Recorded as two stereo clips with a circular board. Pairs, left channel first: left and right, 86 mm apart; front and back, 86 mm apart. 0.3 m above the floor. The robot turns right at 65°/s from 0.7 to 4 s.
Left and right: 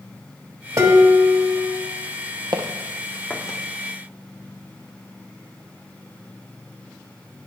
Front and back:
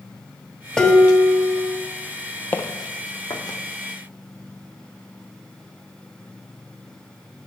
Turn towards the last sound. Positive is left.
turn(degrees=75)